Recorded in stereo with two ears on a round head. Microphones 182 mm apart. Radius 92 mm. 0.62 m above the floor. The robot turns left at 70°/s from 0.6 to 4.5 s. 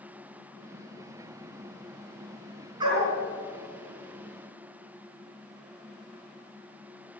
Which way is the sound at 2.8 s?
20° right (ahead or behind).